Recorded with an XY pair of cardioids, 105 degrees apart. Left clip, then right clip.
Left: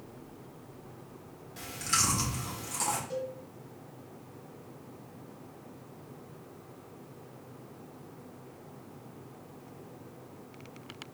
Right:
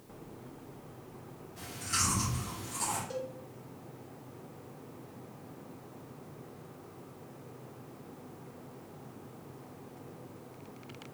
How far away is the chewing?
About 2.0 m.